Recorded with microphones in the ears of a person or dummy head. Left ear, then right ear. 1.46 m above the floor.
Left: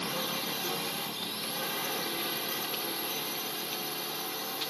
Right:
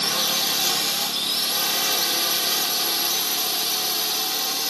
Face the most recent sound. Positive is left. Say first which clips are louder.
# right 11 dB
turn(degrees=-50)  # may be behind; listen again after turning